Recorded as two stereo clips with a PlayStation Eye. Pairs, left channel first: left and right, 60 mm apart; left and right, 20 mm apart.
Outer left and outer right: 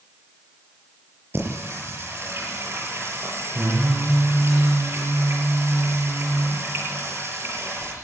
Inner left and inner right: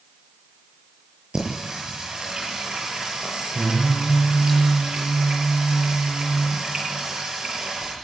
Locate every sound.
1.3 s singing: 45° right (ahead or behind), 7 m